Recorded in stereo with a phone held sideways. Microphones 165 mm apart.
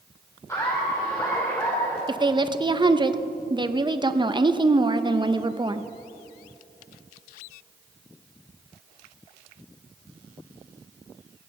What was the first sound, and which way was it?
Laughter, 20° left (ahead or behind).